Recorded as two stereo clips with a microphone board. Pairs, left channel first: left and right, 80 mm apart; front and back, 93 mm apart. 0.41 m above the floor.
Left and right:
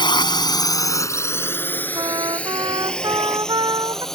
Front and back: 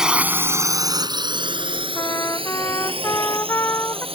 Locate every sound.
0.0 s a drone: 100° left; by 4.2 s 175° left
1.9 s a trumpet: 60° right